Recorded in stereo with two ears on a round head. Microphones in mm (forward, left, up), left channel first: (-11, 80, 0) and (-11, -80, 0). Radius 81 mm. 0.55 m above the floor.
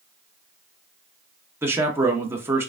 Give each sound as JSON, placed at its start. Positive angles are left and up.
{"t": 1.6, "sound": "a man speaking", "side_deg": -15, "distance_m": 0.6}